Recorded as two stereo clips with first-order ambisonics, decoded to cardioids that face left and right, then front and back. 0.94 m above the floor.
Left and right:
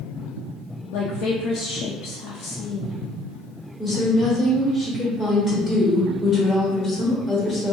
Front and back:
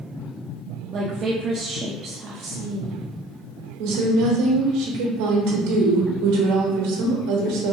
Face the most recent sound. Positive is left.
turn(degrees=175)